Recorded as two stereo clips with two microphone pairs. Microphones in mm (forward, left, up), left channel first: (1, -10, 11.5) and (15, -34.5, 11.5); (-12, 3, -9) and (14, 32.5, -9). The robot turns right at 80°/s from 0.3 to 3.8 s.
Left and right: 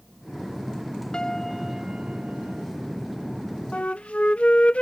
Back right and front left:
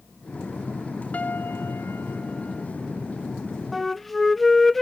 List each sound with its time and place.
1.1 s a piano: straight behind; by 2.7 s 60° right
3.7 s a flute: 135° left; by 4.8 s 145° left